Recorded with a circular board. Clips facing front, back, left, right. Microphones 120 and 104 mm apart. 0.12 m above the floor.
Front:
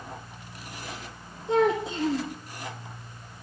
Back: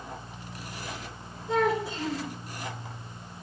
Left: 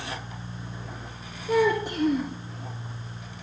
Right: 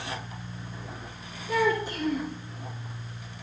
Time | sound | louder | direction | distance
1.5 | a child speaking | front 3 dB, left 3 dB | 65° left | 3 m